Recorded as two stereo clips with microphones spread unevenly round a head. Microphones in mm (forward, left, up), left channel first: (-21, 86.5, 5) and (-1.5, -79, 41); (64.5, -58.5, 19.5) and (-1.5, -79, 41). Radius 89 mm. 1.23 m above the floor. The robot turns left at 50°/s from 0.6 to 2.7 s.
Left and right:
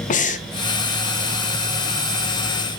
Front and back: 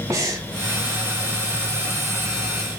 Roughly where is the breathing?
Behind left.